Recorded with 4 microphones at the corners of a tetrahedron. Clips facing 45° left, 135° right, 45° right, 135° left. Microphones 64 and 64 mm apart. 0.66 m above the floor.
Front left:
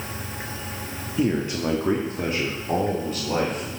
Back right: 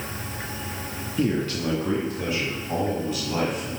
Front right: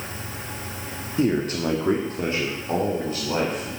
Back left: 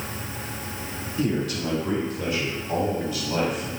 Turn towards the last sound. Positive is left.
turn(degrees=10)